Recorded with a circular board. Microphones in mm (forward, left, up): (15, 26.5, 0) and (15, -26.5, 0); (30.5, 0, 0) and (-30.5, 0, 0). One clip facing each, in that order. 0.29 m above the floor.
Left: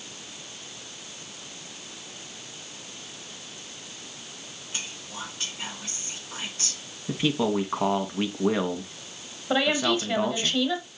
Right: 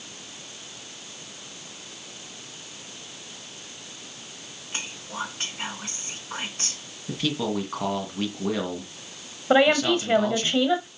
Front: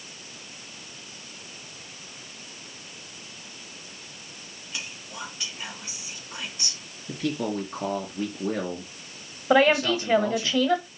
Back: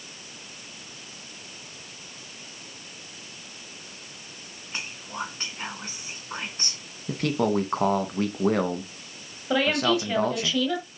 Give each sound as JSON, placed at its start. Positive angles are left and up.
{"t": 4.7, "sound": "whispering", "azimuth_deg": -130, "distance_m": 3.0}
{"t": 7.1, "sound": "a man speaking", "azimuth_deg": 160, "distance_m": 2.0}
{"t": 9.5, "sound": "a woman speaking", "azimuth_deg": -50, "distance_m": 1.4}